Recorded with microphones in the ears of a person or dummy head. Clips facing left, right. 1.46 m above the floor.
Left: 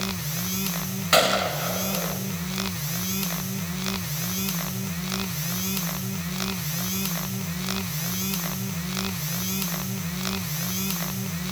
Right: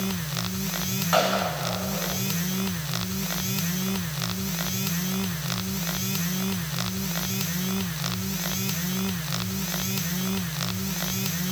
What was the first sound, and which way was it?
A gunshot, 30° left (ahead or behind).